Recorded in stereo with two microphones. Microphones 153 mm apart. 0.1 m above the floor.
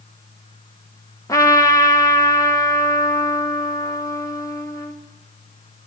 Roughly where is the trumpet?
Left.